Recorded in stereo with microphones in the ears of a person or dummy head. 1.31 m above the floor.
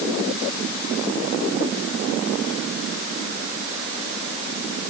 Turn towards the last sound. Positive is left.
No sound to turn to.